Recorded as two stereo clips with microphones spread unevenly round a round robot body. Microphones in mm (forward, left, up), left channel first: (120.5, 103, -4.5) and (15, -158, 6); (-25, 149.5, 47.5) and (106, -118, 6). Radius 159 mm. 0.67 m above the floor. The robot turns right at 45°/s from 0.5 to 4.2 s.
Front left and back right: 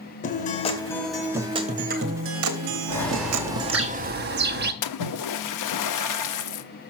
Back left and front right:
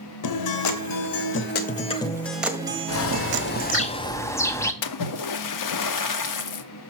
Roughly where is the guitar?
Behind left.